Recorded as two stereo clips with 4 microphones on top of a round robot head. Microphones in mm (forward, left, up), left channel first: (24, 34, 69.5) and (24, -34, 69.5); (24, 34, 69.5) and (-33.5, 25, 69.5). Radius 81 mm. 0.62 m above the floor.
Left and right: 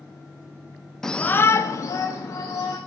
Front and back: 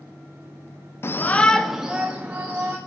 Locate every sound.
1.0 s a shout: 10° left, 0.8 m; by 2.8 s 125° left, 2.0 m